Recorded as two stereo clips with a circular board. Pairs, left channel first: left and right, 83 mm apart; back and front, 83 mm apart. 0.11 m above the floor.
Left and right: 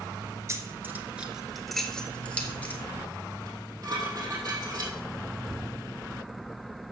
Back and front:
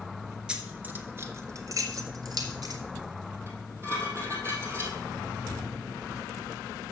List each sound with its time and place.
0.5 s keys jangling: 70° right, 1.1 m; by 2.8 s 25° left, 1.8 m
3.5 s dishes clattering: 50° right, 3 m